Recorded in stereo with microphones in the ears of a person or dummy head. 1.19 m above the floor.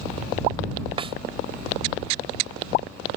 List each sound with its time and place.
1.0 s a snare drum: 30° right (ahead or behind)